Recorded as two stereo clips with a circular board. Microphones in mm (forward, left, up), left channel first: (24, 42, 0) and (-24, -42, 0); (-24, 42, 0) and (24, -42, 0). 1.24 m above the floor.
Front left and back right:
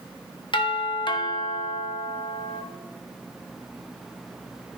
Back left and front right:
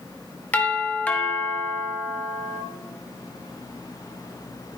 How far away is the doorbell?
About 1.3 m.